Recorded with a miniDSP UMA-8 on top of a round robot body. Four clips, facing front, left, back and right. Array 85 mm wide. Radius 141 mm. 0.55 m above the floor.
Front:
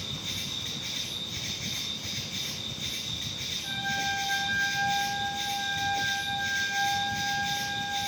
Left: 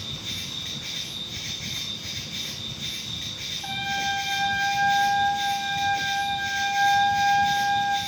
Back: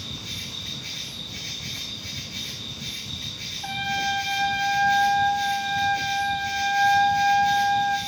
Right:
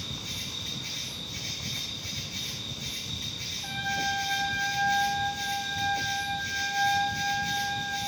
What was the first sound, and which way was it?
An insect, 65° left.